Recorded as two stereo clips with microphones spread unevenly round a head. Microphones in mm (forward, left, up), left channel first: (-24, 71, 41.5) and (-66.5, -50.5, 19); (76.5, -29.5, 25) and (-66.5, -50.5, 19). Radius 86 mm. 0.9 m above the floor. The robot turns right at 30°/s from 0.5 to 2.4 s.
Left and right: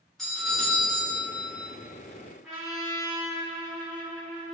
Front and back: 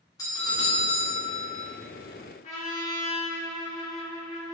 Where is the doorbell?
30° right, 1.0 m; by 1.7 s 5° left, 1.0 m.